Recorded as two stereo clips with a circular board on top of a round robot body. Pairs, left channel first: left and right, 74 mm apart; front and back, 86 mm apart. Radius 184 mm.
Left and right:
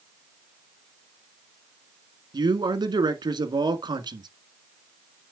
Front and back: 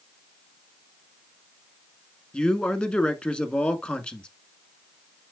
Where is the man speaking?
75° right, 1.9 m.